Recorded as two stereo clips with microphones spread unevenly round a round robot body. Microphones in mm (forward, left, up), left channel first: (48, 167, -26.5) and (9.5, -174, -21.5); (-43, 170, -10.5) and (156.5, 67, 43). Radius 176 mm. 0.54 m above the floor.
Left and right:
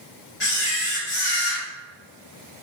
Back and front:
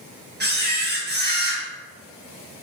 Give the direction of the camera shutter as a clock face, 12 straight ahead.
11 o'clock.